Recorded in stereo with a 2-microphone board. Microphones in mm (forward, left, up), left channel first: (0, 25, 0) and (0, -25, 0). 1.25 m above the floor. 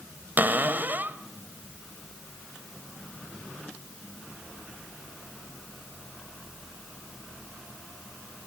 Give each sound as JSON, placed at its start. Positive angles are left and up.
{"t": 0.4, "sound": "a cupboard door", "side_deg": -40, "distance_m": 1.6}